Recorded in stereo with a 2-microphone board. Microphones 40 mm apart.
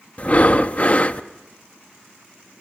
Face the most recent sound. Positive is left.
turn(degrees=35)  # may be behind; listen again after turning